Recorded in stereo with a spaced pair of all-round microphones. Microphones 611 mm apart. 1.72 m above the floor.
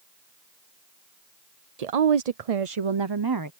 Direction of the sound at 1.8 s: 80° right.